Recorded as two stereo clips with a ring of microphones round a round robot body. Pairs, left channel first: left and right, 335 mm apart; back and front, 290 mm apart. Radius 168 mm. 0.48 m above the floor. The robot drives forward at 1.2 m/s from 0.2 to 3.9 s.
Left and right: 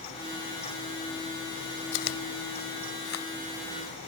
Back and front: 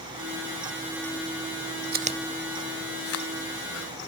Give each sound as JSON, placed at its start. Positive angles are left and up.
{"t": 1.9, "sound": "chewing", "azimuth_deg": 55}